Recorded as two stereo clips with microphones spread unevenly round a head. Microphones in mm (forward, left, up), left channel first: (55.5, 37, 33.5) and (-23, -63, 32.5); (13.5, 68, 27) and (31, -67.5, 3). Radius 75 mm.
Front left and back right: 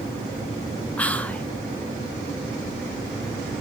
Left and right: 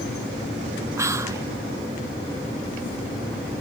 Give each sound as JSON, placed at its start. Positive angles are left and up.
{"t": 1.0, "sound": "whispering", "azimuth_deg": -25, "distance_m": 0.7}